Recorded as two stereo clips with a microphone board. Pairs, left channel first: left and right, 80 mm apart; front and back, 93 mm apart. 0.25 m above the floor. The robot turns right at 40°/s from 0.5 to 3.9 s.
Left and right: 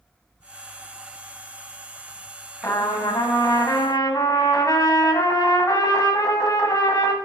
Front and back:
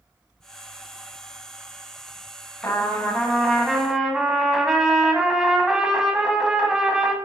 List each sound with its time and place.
2.6 s a trumpet: 50° left, 1.8 m; by 7.2 s 100° left, 1.8 m